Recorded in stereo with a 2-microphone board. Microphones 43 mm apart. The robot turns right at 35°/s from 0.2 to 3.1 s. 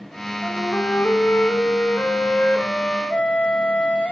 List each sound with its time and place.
0.4 s a flute: 55° left, 2.5 m; by 4.1 s 150° left, 2.5 m